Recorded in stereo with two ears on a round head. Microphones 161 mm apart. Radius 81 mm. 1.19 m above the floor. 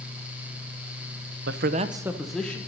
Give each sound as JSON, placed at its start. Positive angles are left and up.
{"t": 1.5, "sound": "a man speaking", "side_deg": -65, "distance_m": 0.5}